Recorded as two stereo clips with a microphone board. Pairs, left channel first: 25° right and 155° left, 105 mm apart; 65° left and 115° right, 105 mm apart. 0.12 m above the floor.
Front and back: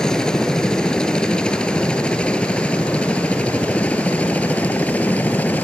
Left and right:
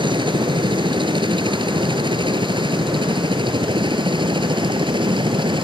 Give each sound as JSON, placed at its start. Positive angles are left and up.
{"t": 0.0, "sound": "a helicopter", "azimuth_deg": -105}